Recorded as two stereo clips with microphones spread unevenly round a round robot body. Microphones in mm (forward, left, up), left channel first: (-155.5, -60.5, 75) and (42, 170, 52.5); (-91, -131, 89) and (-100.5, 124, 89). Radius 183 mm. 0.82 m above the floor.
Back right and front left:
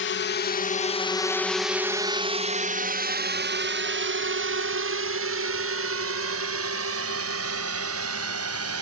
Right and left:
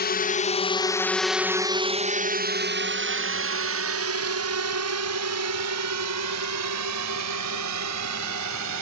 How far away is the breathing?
I don't hear breathing.